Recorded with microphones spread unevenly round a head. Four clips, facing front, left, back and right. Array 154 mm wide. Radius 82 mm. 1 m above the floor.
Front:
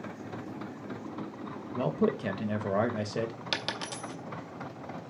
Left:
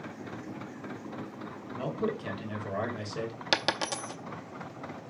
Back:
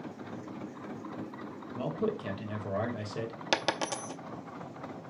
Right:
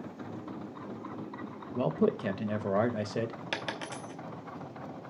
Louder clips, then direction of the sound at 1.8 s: Right 4 dB, front 4 dB; 55° right.